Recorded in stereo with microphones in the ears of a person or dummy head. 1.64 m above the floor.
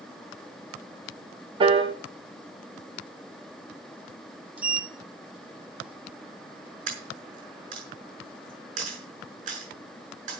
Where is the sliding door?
10° right (ahead or behind), 0.9 m.